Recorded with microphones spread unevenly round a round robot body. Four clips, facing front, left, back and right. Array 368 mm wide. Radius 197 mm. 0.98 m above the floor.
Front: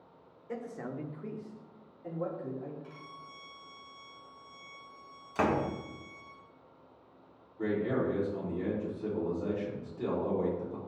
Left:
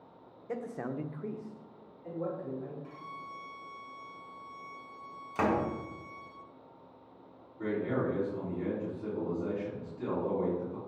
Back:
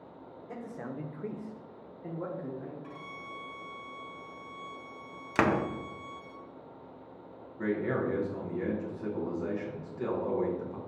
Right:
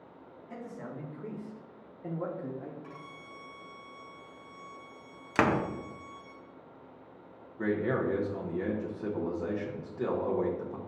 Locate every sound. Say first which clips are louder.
0.5 s a man speaking: left 5 dB, front 1 dB; 95° left, 0.8 m; by 2.7 s 105° right, 1.4 m
2.8 s a violin: left 2 dB, back 4 dB; 105° right, 1.5 m
5.3 s a door slam: right 2 dB, back 2 dB; 130° right, 0.5 m
7.6 s a man speaking: right 2 dB, even; 95° right, 1.0 m